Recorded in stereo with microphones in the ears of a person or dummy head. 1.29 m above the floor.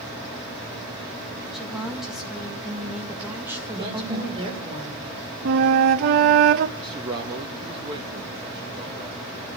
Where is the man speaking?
30° right (ahead or behind), 1.8 m.